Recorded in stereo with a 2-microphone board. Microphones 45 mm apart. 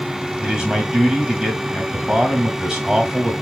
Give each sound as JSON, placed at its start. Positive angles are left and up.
{"t": 0.4, "sound": "a man speaking", "side_deg": -10, "distance_m": 1.2}